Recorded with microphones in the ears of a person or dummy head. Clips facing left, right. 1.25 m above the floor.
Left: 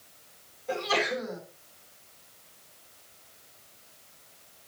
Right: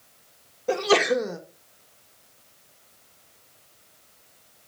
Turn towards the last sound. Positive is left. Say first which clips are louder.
# right 9 dB
turn(degrees=-80)